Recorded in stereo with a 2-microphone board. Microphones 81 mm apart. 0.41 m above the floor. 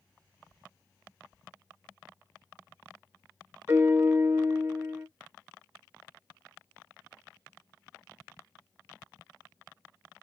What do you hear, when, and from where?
3.7 s a piano: 35° right (ahead or behind), 0.9 m